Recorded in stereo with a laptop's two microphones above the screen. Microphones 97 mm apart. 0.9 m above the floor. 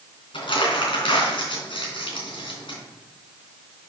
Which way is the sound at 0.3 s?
60° left (ahead or behind).